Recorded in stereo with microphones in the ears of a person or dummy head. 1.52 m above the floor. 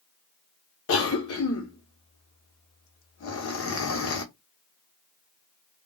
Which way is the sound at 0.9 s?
65° left (ahead or behind).